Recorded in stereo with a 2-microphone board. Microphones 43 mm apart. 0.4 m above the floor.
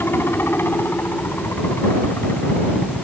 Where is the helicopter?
60° left (ahead or behind).